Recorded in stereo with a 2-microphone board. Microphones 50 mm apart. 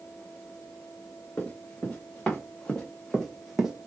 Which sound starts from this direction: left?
Running footsteps, at 1.4 s.